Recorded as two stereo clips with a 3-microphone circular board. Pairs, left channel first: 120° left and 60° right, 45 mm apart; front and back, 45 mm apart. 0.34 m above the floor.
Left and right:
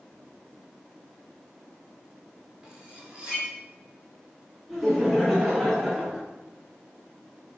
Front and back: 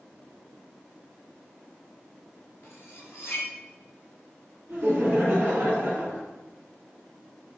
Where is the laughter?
150° right, 2.5 m.